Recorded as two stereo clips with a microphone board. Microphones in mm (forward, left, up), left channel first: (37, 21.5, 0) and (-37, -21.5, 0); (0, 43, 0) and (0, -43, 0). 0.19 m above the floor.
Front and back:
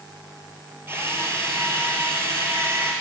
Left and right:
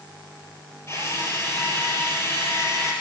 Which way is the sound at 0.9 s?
150° left.